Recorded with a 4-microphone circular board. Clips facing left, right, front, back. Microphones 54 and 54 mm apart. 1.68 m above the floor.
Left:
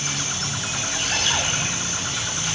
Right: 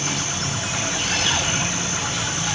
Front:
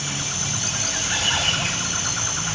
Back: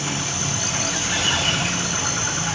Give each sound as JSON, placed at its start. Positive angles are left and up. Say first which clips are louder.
{"t": 0.0, "sound": "an insect", "louder": "right 3 dB, back 3 dB", "azimuth_deg": -145, "distance_m": 1.3}